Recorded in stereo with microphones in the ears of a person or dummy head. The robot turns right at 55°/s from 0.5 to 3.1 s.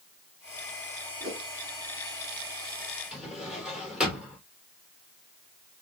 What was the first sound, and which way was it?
A whoosh, 45° right (ahead or behind).